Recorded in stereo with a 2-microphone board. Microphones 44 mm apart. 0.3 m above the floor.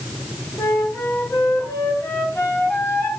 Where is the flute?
75° left (ahead or behind), 4 m.